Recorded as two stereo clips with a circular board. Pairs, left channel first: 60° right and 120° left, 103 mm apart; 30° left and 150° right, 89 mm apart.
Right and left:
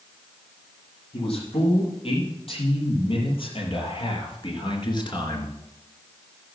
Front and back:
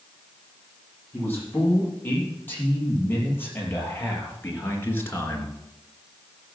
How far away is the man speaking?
About 7.5 m.